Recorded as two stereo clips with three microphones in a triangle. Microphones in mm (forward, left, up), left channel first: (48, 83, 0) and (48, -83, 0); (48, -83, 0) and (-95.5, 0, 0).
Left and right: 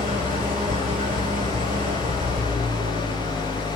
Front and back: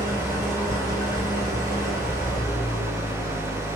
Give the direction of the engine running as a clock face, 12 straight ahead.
3 o'clock.